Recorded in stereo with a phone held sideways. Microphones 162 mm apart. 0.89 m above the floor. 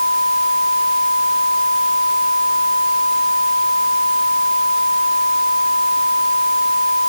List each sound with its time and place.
Only background noise.